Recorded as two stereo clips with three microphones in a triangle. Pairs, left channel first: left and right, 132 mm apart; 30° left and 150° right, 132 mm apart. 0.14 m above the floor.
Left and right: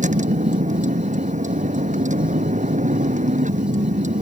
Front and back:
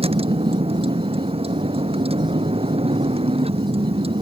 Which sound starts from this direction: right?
A vehicle, at 0.0 s.